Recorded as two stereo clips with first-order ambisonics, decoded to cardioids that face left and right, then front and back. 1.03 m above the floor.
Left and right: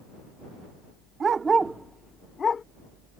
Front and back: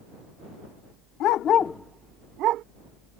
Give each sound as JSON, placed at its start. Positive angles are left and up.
{"t": 1.2, "sound": "a dog barking", "azimuth_deg": -25}